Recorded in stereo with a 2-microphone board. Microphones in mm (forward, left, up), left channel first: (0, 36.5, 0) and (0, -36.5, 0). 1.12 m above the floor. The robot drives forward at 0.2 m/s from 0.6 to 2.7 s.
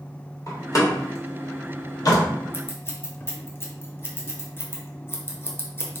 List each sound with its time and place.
0.5 s a door slam: 45° left (ahead or behind), 1.5 m; by 2.2 s 55° left (ahead or behind), 1.3 m
2.5 s scissors: 30° left (ahead or behind), 0.9 m